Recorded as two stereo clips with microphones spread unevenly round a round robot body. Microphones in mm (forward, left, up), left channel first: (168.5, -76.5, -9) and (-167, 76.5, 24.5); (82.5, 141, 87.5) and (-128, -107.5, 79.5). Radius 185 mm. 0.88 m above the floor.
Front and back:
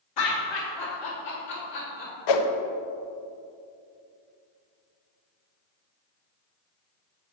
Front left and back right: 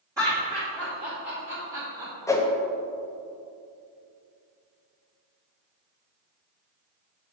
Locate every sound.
0.2 s laughter: 50° right, 2 m; by 2.1 s 90° right, 3 m
2.3 s a whoosh: 30° right, 0.7 m